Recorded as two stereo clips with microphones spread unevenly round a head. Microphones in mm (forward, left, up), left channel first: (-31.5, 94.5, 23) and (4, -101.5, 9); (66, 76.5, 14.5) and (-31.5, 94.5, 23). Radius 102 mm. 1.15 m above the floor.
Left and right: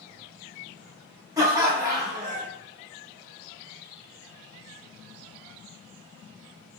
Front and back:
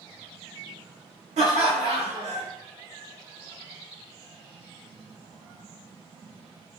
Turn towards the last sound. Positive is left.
turn(degrees=-150)